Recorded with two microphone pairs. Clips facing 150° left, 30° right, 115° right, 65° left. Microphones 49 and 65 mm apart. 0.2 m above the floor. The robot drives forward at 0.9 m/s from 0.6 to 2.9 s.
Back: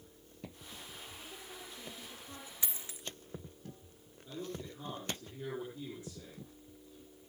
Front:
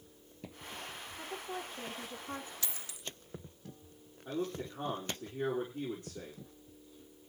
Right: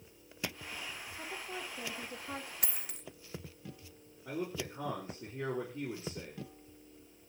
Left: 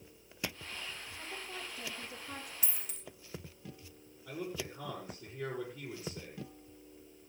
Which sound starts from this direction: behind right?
A dropped coin, at 2.6 s.